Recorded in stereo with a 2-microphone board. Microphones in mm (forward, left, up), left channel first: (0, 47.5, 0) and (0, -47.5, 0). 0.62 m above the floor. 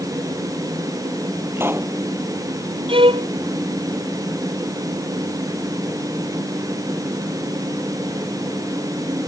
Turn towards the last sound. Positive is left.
turn(degrees=-75)  # may be behind; listen again after turning